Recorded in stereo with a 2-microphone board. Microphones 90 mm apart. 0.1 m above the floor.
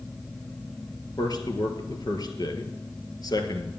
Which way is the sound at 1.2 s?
50° left (ahead or behind).